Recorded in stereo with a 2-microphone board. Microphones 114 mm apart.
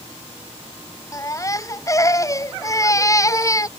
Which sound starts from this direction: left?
A baby crying, at 1.1 s.